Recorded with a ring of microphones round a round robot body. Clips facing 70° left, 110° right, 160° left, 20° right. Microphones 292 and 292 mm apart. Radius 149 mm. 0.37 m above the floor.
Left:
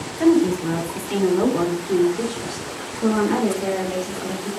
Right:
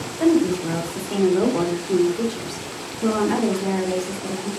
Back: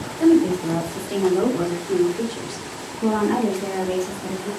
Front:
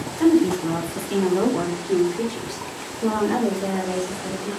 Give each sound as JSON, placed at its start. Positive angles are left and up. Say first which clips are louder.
{"t": 0.2, "sound": "a woman speaking", "louder": "left 1 dB, back 1 dB", "azimuth_deg": 10, "distance_m": 1.7}